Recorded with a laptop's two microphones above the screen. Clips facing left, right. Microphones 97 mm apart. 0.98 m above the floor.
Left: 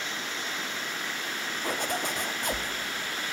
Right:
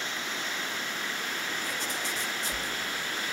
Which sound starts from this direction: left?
A zipper, at 1.6 s.